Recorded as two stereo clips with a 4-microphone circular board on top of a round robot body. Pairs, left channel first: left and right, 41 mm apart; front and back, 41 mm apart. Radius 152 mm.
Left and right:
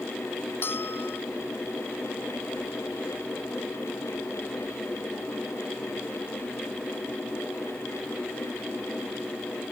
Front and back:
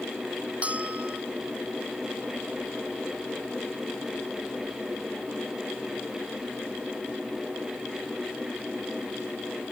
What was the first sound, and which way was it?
A bell, 120° left.